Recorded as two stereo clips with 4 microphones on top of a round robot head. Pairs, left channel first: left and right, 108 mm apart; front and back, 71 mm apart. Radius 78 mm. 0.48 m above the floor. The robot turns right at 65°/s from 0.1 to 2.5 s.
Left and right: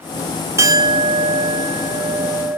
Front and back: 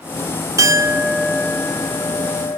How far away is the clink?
About 0.7 m.